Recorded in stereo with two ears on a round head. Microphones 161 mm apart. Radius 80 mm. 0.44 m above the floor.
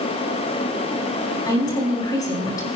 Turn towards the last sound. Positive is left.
turn(degrees=25)  # may be behind; listen again after turning